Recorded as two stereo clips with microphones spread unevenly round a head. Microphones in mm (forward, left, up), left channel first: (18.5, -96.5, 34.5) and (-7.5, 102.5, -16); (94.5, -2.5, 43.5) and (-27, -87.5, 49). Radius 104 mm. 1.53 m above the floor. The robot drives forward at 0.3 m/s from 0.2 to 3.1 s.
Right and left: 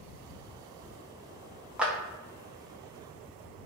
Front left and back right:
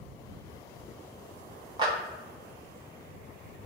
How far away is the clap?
About 0.5 m.